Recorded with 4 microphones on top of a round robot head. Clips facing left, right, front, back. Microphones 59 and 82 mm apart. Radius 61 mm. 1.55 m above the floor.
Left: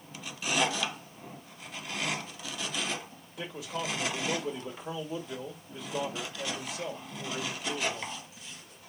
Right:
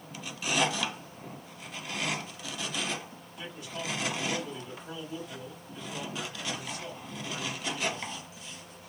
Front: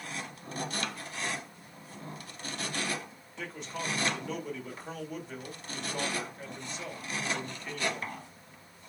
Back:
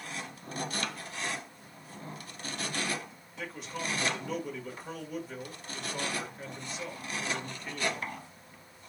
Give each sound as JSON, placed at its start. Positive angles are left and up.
{"t": 3.4, "sound": "a man speaking", "azimuth_deg": 90, "distance_m": 1.7}